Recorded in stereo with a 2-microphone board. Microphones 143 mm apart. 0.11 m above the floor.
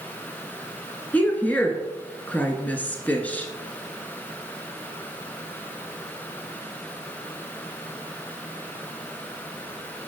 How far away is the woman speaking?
About 1.1 m.